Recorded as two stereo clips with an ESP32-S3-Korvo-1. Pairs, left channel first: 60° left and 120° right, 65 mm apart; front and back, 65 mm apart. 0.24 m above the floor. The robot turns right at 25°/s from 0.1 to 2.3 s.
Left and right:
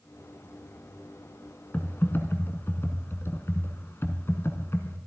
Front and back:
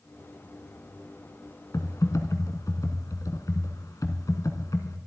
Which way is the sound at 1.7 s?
Straight ahead.